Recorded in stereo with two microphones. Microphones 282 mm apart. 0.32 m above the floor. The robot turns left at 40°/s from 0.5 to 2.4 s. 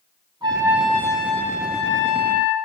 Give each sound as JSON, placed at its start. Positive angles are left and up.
{"t": 0.4, "sound": "a trumpet", "azimuth_deg": -165, "distance_m": 2.5}